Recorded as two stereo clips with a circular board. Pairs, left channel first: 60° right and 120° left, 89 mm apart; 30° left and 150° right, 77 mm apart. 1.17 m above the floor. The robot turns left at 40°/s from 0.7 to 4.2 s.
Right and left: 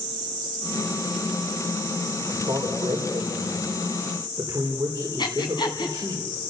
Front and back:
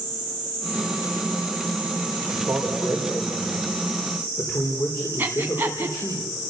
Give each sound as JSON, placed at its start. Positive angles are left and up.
{"t": 2.3, "sound": "a man speaking", "azimuth_deg": 150, "distance_m": 4.0}
{"t": 5.2, "sound": "breathing", "azimuth_deg": -90, "distance_m": 2.5}